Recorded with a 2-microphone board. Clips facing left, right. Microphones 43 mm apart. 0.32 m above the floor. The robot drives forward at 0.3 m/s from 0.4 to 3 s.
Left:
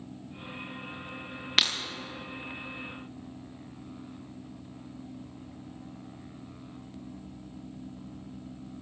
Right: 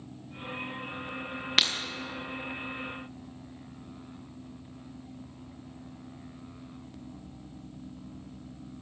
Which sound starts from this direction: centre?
Breaking glass, at 1.6 s.